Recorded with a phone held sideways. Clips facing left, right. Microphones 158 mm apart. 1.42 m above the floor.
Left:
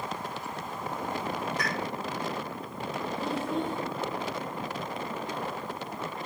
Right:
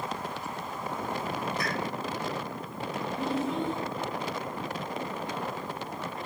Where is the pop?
80° left, 3.5 m.